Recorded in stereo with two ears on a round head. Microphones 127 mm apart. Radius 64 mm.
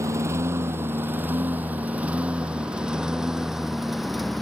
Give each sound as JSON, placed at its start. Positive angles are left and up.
{"t": 0.0, "sound": "a lawn mower", "side_deg": -20}